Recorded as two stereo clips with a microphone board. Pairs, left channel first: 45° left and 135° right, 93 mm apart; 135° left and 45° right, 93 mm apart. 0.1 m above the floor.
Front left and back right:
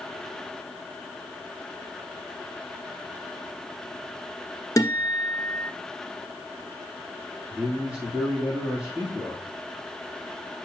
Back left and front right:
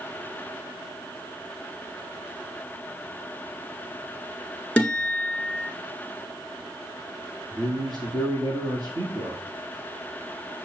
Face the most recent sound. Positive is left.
turn(degrees=-60)